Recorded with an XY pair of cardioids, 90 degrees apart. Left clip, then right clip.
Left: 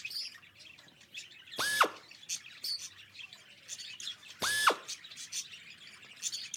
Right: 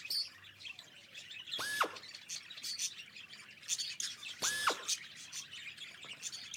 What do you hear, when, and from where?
1.6 s a drill: 55° left, 0.8 m